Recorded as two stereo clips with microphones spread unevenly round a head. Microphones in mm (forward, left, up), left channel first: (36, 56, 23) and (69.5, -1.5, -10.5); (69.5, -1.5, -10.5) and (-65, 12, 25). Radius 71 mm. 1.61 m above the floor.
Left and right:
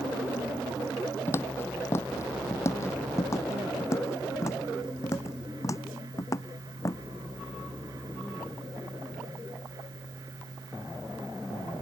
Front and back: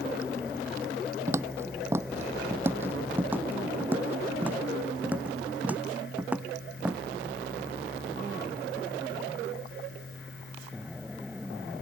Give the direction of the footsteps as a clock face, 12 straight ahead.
8 o'clock.